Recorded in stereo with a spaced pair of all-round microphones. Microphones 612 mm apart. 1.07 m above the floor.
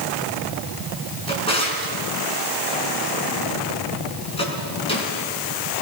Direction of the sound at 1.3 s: 10° left (ahead or behind).